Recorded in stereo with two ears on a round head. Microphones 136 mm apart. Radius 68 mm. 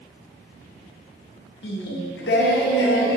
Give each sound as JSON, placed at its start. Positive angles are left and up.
{"t": 1.6, "sound": "singing", "side_deg": 70, "distance_m": 0.6}